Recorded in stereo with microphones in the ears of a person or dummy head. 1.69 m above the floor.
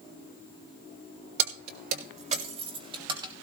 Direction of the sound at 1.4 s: 65° right (ahead or behind).